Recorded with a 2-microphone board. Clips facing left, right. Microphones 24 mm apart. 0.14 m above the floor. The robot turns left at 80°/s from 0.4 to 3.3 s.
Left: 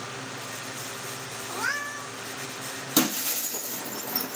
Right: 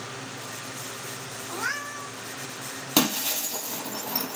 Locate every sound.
1.5 s a cat meowing: 30° left, 2 m; by 2.1 s 20° right, 2 m
3.0 s breaking glass: 35° right (ahead or behind), 1.2 m; by 4.4 s 60° right (ahead or behind), 1.2 m